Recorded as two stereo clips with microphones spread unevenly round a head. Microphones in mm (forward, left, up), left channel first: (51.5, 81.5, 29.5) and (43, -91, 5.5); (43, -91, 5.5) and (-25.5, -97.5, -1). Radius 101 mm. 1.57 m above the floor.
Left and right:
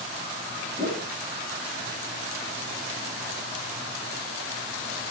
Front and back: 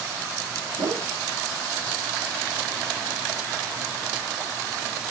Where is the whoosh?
155° right, 7.5 m.